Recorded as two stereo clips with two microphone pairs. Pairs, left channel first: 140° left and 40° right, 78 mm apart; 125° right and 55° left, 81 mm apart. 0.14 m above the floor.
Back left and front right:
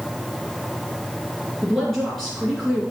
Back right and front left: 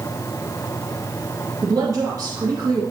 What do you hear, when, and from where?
1.6 s a woman speaking: 60° left, 2.5 m